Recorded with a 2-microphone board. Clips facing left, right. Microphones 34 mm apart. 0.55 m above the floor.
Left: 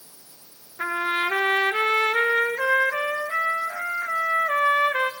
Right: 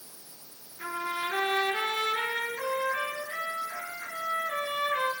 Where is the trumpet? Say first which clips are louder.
Left 8 dB; 60° left (ahead or behind), 1.7 m.